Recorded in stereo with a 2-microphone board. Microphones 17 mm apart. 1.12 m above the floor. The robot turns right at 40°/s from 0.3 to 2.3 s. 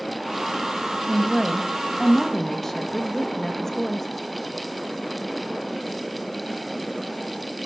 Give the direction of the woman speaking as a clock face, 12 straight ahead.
1 o'clock.